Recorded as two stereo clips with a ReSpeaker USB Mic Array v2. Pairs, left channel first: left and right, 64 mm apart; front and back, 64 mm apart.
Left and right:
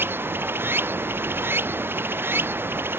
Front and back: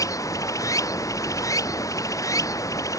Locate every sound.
0.0 s running water: 35° right